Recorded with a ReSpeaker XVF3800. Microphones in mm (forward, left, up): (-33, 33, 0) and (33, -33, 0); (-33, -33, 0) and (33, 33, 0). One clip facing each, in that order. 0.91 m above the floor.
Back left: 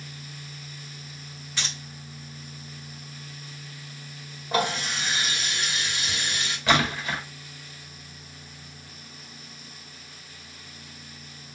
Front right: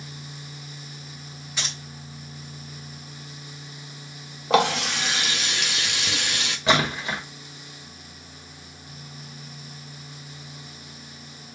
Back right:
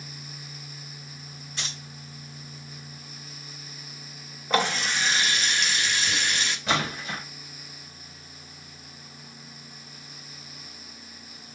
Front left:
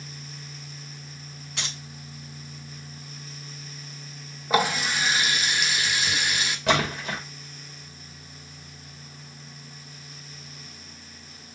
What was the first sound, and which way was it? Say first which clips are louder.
Keys jangling: even, front left 2 dB; 30° left.